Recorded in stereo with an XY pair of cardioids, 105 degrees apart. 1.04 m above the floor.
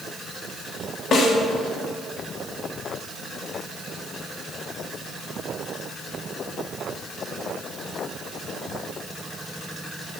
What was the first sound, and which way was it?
A snare drum, 60° left.